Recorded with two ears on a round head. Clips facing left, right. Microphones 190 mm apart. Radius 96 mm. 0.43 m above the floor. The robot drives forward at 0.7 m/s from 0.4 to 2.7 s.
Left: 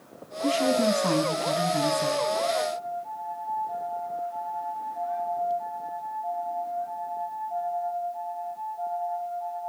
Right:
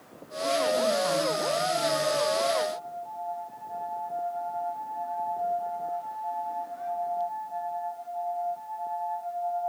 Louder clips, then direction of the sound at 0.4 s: Left 3 dB; 50° left (ahead or behind).